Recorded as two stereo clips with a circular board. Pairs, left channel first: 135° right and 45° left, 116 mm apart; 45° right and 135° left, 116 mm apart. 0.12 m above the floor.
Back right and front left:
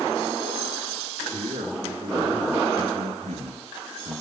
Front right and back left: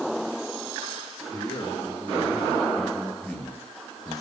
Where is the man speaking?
20° left, 9 m; by 4.2 s 45° left, 7 m.